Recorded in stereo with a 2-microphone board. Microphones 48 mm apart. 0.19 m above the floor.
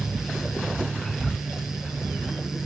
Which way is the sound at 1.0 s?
5° left (ahead or behind).